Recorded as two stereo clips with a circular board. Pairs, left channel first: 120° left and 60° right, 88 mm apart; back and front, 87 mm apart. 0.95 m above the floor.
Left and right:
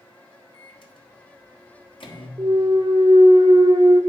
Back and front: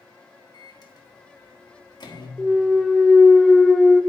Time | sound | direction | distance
0.5 | a microwave | 145° left | 1.3 m
2.4 | a clunk | 90° right | 0.6 m